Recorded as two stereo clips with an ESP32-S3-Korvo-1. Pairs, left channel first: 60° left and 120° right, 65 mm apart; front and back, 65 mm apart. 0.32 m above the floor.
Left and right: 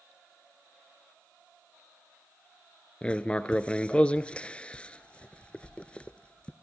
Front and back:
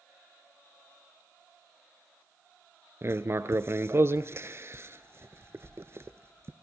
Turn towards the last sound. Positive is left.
turn(degrees=135)